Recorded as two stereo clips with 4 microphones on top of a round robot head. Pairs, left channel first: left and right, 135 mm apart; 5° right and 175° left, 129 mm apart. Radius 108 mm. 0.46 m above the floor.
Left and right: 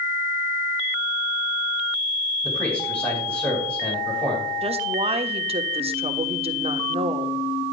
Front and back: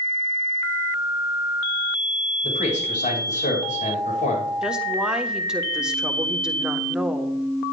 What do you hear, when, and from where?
2.4 s a man speaking: 10° left, 6 m
4.6 s a woman speaking: 100° right, 1.3 m